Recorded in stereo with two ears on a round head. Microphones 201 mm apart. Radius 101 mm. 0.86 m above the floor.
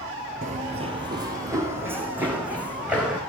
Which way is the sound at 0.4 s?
35° right (ahead or behind).